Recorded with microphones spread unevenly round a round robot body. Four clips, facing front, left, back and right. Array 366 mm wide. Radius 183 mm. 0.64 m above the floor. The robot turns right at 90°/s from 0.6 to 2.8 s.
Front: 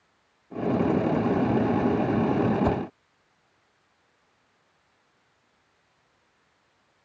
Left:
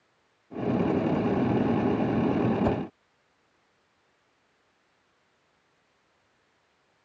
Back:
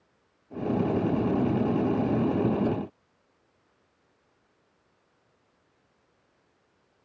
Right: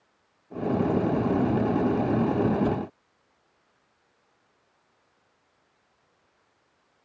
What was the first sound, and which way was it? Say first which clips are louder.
A whoosh: even, front 3 dB; 25° left.